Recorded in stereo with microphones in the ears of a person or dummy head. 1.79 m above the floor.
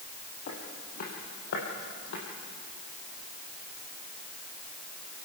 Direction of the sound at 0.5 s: 40° left (ahead or behind).